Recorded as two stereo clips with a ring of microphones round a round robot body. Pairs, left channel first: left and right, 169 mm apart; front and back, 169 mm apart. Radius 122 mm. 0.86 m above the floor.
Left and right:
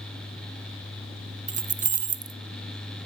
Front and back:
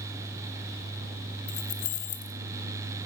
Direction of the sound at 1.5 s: 40° right.